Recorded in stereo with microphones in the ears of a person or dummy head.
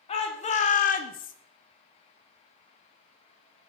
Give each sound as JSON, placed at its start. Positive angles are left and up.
{"t": 0.1, "sound": "a shout", "side_deg": 30, "distance_m": 1.0}